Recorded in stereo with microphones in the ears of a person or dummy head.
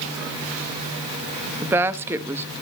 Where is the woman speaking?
15° right (ahead or behind), 0.8 m.